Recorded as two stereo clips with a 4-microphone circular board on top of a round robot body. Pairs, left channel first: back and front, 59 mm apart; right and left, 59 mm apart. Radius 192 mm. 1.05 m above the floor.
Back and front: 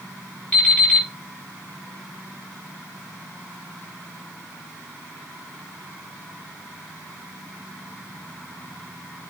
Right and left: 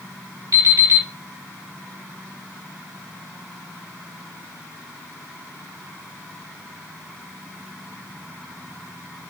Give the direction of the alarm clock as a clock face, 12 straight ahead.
8 o'clock.